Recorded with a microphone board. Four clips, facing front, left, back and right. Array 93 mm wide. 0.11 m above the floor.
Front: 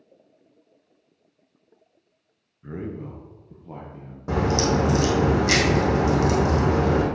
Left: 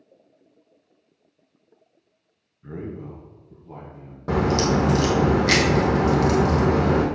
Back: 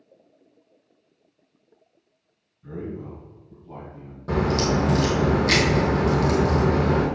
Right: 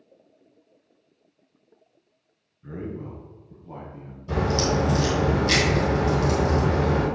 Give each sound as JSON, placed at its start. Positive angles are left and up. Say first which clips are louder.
{"t": 2.6, "sound": "a man speaking", "louder": "even, even", "azimuth_deg": 25, "distance_m": 1.3}
{"t": 4.3, "sound": "a crack", "louder": "left 3 dB, even", "azimuth_deg": 75, "distance_m": 2.0}